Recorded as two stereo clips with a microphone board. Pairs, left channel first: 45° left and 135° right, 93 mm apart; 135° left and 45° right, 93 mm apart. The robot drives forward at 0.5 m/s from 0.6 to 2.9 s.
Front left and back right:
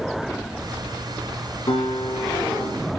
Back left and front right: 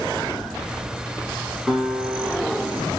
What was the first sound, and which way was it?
A guitar, 50° left.